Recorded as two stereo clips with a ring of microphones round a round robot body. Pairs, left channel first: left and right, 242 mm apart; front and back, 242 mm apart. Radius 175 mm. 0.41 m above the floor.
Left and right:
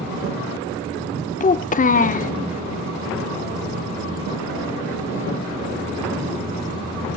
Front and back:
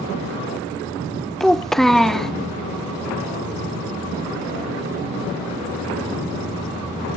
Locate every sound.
1.4 s a child speaking: 85° left, 0.6 m